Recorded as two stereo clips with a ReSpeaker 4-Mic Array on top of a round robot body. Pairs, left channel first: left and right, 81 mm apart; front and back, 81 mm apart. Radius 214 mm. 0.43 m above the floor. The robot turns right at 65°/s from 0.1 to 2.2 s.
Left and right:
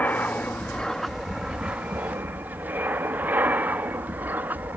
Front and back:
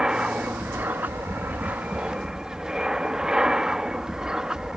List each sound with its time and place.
0.0 s an aircraft: 110° left; by 4.8 s 110° right